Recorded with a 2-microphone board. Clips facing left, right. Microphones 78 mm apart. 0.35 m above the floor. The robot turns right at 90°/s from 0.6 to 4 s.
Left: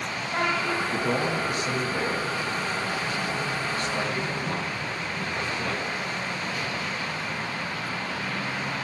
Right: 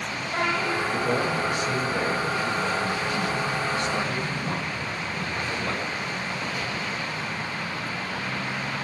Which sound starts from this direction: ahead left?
A man speaking, at 0.8 s.